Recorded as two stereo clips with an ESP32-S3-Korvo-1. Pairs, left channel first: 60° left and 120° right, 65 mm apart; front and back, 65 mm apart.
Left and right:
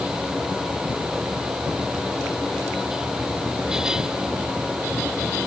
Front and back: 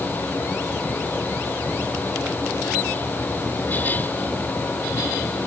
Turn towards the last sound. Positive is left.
No sound to turn to.